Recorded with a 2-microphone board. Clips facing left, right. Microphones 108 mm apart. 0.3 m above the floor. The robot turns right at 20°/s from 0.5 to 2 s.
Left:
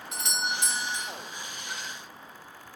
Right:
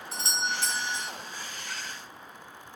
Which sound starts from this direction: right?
A doorbell, at 0.1 s.